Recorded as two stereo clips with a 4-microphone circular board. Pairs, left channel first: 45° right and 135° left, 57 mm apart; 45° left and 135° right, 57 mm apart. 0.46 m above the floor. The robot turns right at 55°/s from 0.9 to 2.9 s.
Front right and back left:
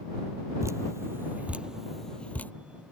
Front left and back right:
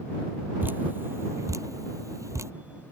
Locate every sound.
0.6 s dripping: 170° left; by 2.5 s 100° right